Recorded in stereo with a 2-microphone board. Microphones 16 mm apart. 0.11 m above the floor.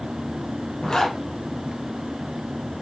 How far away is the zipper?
About 4 m.